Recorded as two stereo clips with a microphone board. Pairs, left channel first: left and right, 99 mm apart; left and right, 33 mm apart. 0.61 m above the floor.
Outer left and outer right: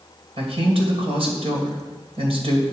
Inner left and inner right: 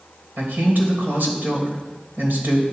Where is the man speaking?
70° right (ahead or behind), 2.5 m.